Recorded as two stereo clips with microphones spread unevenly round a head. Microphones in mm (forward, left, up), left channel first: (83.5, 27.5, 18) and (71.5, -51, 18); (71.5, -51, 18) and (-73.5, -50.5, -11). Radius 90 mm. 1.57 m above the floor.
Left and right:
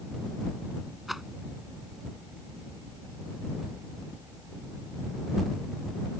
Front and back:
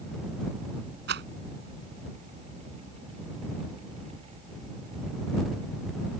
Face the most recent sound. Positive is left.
turn(degrees=175)